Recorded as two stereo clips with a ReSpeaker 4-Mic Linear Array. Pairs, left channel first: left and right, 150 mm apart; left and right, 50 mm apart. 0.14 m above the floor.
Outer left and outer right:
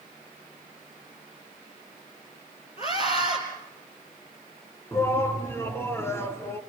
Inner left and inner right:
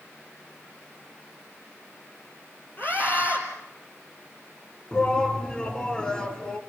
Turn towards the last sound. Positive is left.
turn(degrees=15)  # may be behind; listen again after turning